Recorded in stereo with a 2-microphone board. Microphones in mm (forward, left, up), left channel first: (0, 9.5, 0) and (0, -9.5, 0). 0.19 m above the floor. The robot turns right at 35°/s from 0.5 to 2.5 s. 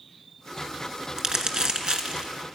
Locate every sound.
1.2 s crumpling: 40° right (ahead or behind), 1.2 m; by 2.3 s 65° right (ahead or behind), 1.2 m